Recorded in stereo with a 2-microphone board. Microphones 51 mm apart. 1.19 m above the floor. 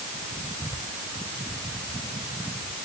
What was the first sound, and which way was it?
Only background noise.